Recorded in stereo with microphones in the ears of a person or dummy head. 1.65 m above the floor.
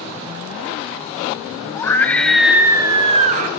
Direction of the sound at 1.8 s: 20° left (ahead or behind).